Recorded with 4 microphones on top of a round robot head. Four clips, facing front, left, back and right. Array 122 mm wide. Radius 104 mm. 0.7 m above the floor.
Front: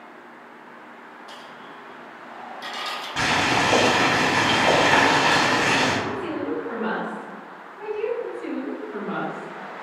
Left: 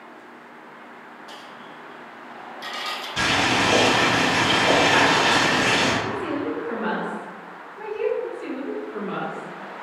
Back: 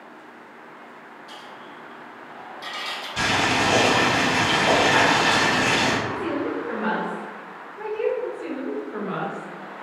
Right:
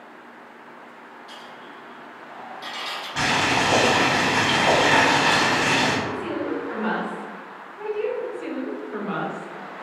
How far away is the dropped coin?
About 0.5 m.